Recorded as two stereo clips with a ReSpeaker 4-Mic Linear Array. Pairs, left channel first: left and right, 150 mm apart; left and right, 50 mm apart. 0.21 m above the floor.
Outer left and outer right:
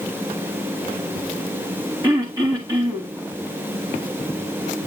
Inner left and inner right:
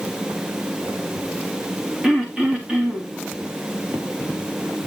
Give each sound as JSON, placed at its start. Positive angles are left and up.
{"t": 2.0, "sound": "throat clearing", "side_deg": -25, "distance_m": 4.5}